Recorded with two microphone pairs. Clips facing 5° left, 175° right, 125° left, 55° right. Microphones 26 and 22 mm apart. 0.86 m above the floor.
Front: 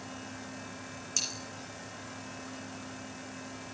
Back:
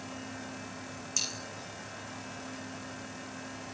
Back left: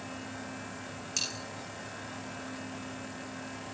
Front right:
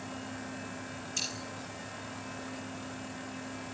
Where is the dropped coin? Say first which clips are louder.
Even, back left 2 dB; 90° left, 8 m.